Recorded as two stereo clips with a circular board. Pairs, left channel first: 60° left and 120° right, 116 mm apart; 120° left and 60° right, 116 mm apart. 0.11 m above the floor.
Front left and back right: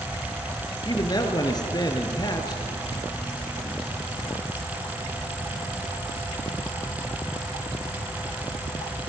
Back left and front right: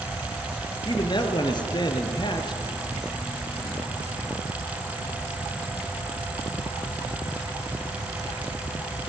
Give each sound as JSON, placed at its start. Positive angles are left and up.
{"t": 0.8, "sound": "a man speaking", "azimuth_deg": 95, "distance_m": 2.5}